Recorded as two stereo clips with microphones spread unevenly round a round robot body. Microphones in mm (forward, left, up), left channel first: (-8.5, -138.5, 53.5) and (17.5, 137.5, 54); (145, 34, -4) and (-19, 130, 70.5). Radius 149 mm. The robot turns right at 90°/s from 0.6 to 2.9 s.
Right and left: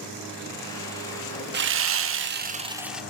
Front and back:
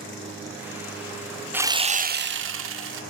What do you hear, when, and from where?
1.5 s sawing: 50° left, 0.6 m; by 3.0 s 170° left, 0.6 m